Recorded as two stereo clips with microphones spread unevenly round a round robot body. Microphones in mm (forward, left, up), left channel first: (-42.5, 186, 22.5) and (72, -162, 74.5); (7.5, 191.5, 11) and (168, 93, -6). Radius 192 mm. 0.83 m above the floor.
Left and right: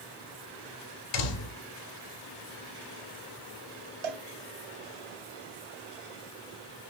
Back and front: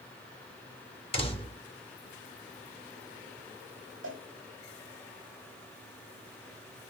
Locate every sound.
1.1 s a door slam: 85° left, 2.5 m
4.0 s a cowbell: 85° right, 2.5 m